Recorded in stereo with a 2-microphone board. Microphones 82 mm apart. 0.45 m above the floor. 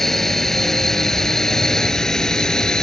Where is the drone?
5° left (ahead or behind).